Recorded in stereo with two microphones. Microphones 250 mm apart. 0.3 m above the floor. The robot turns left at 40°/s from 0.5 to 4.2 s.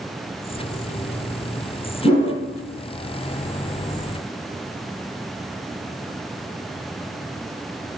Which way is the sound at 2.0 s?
35° left (ahead or behind).